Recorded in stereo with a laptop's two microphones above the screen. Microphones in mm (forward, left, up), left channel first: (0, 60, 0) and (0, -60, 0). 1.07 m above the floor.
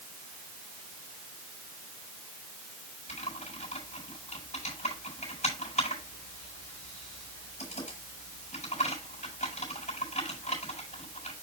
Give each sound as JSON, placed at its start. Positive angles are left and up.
{"t": 3.1, "sound": "typing on a keyboard", "side_deg": 80, "distance_m": 8.0}